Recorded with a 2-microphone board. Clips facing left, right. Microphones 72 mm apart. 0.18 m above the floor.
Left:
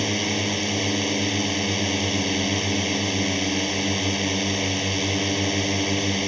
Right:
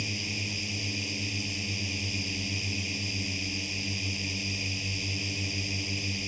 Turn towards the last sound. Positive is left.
turn(degrees=70)  # may be behind; listen again after turning